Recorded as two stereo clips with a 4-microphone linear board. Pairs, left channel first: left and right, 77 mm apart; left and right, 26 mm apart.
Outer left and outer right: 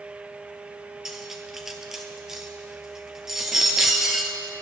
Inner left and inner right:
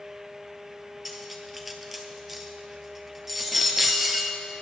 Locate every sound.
1.1 s cutlery clinking: 5° right (ahead or behind), 1.2 m